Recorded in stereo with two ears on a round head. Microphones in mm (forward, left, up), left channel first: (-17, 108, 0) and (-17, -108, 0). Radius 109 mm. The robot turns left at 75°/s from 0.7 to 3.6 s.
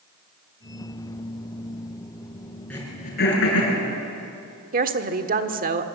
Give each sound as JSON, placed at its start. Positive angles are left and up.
{"t": 2.7, "sound": "throat clearing", "side_deg": 5, "distance_m": 7.0}
{"t": 4.7, "sound": "a woman speaking", "side_deg": -35, "distance_m": 1.4}